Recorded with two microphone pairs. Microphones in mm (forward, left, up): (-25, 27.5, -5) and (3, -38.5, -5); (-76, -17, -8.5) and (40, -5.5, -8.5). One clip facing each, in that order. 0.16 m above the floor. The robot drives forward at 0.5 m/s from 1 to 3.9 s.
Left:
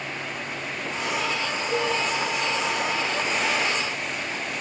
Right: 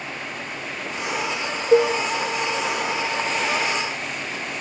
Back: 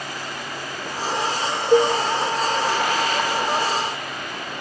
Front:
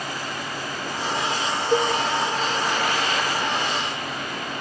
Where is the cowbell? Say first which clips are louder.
Right 10 dB, back 6 dB; 100° right, 1.1 m; by 2.0 s 110° right, 1.2 m.